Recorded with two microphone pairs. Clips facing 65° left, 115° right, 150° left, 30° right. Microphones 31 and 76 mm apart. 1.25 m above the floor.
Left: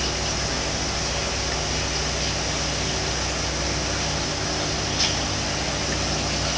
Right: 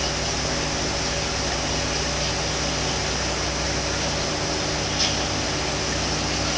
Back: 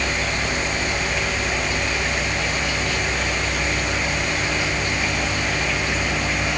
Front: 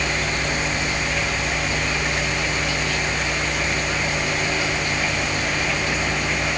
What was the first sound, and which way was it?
Only background noise.